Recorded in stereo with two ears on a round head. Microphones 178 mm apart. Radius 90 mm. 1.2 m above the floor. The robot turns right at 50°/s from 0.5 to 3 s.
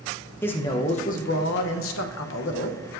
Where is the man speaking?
10° left, 0.9 m; by 3.0 s 135° left, 0.9 m.